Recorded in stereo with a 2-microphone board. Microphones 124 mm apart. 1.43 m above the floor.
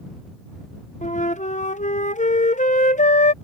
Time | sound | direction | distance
1.0 | a flute | 75° left (ahead or behind) | ?